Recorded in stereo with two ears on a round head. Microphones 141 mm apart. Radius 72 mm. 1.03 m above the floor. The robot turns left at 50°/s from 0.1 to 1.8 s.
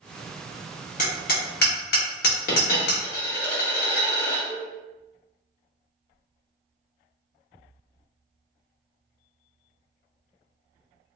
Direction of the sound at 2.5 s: 60° left (ahead or behind).